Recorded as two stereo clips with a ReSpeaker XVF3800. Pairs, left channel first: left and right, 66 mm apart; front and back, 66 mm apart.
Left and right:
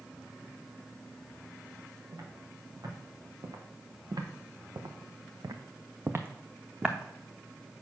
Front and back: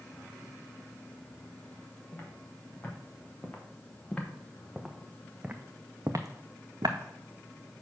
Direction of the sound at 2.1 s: 60° right.